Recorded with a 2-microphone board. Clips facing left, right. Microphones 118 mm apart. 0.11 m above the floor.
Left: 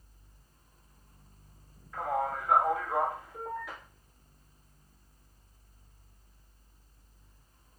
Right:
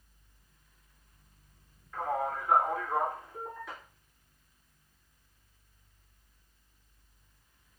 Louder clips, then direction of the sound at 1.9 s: Left 1 dB; centre (ahead or behind).